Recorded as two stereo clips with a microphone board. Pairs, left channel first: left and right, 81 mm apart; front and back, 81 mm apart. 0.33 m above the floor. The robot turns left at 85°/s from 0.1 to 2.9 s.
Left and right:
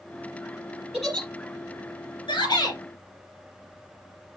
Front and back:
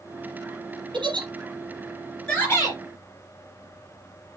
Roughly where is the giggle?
Behind.